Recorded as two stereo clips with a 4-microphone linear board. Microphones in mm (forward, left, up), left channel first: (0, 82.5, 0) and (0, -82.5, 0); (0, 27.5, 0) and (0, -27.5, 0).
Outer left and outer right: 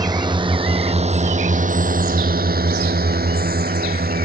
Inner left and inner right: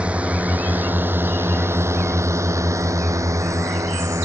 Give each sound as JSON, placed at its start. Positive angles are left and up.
{"t": 0.0, "sound": "a drone", "side_deg": -25}